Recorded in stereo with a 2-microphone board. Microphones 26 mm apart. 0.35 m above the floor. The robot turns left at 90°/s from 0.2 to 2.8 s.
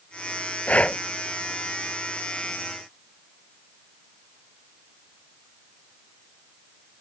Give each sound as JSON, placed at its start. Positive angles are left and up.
{"t": 0.7, "sound": "breathing", "side_deg": 60}